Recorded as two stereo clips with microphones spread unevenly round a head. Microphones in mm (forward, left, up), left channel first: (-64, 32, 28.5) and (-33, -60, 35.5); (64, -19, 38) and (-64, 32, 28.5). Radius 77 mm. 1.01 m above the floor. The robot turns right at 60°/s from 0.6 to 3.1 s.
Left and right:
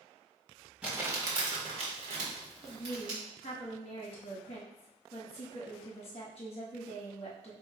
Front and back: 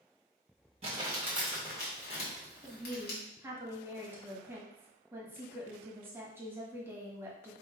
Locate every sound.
0.8 s crumpling: 155° right, 1.7 m; by 3.2 s 15° right, 1.7 m
2.6 s a woman speaking: 55° left, 1.4 m; by 7.5 s 85° left, 1.4 m